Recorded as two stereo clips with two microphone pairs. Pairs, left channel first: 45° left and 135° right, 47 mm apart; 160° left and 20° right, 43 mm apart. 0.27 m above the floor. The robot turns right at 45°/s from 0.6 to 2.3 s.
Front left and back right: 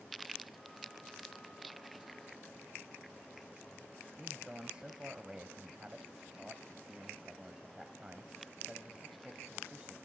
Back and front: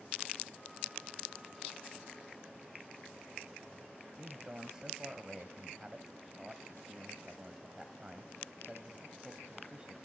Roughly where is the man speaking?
Right.